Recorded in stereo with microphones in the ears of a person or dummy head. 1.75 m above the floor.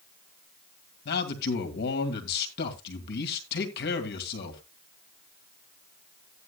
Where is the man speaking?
55° left (ahead or behind), 2.5 m.